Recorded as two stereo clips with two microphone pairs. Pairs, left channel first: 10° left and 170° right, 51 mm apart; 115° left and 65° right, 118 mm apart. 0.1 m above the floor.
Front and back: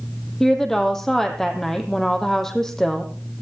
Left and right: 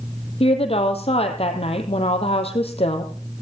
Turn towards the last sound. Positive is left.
turn(degrees=90)